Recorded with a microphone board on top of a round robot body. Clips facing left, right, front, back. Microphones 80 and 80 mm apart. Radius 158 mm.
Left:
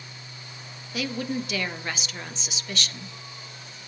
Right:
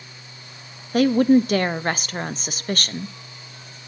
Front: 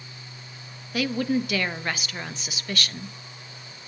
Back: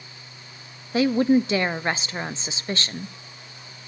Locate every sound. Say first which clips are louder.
0.9 s a woman speaking: right 14 dB, back 6 dB; 125° right, 0.8 m